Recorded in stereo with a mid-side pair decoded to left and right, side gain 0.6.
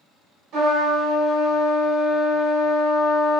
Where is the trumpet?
65° right, 1.9 m.